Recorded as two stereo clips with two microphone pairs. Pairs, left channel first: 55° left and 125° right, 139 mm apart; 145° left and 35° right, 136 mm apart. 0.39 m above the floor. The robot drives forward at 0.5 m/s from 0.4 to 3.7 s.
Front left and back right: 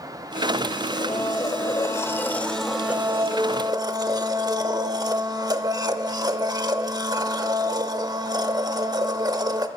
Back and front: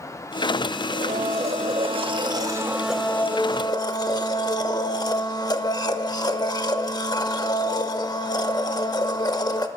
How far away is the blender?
About 1.1 m.